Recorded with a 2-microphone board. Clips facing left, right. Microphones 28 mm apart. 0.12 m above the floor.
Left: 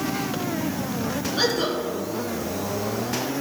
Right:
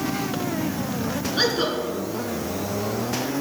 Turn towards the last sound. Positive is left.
turn(degrees=-20)  # may be behind; listen again after turning